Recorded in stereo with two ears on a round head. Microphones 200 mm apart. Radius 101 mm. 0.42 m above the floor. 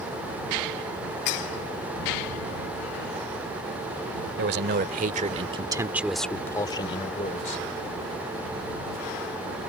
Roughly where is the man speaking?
Right.